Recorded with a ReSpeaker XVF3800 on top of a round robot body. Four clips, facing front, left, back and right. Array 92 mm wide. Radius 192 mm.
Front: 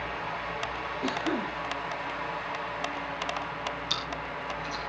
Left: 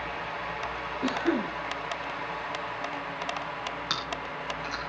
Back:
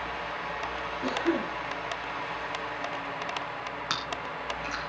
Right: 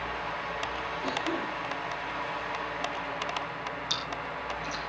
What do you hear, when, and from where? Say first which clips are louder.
1.0 s a cough: left 6 dB, back 2 dB; 110° left, 4.5 m
3.9 s chewing: left 1 dB, back 1 dB; 145° left, 3 m